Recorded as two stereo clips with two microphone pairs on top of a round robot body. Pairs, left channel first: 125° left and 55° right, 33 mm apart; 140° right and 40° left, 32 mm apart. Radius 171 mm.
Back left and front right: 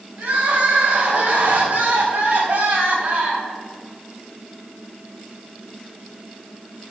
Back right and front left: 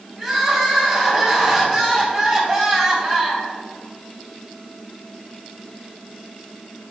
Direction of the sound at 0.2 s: 15° right.